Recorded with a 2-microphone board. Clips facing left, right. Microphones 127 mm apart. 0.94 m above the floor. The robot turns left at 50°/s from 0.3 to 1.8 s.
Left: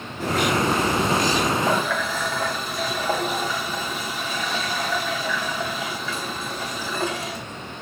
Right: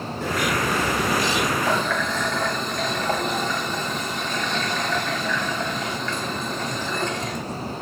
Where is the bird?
90° left, 8.5 m; by 1.5 s 30° left, 8.5 m.